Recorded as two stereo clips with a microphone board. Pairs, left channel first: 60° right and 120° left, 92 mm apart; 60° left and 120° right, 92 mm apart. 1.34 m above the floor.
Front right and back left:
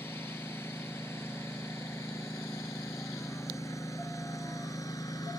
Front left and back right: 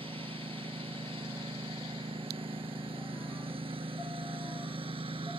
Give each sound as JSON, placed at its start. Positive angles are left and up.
{"t": 0.0, "sound": "a lawn mower", "azimuth_deg": -125}